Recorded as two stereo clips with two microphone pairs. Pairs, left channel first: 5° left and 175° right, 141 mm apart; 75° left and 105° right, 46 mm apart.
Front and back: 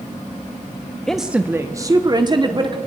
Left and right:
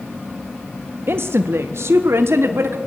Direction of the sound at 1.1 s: 80° right.